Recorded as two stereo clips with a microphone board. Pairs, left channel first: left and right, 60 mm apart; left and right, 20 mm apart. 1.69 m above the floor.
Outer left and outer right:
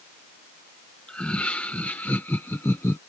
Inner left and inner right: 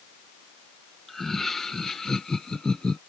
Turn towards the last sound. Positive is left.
turn(degrees=50)  # may be behind; listen again after turning